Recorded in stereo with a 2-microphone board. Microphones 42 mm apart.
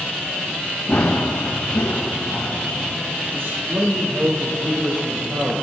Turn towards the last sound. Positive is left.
turn(degrees=-70)  # may be behind; listen again after turning